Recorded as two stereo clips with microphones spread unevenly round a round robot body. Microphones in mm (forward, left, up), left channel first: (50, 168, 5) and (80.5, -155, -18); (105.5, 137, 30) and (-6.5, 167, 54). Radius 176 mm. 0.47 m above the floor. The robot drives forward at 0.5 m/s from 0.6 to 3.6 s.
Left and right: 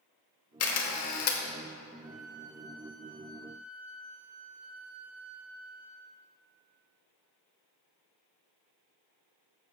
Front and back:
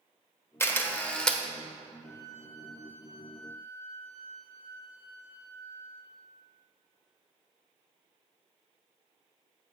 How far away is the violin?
About 3 m.